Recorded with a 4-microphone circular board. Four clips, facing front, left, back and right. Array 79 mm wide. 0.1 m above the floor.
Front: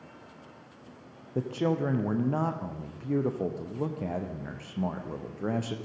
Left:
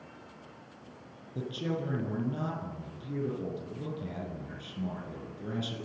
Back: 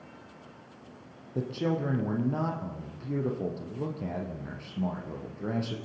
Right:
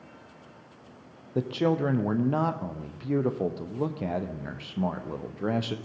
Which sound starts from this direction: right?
A man speaking, at 1.4 s.